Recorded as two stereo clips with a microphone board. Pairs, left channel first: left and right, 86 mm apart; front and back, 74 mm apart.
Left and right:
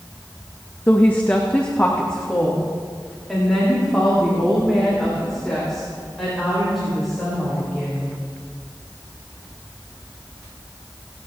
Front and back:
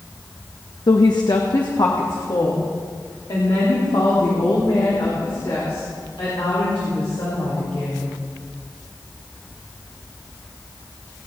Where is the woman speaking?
25° left, 0.8 m; by 8.2 s 5° left, 5.5 m.